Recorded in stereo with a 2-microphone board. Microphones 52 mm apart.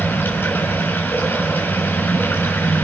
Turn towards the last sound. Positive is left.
turn(degrees=40)  # may be behind; listen again after turning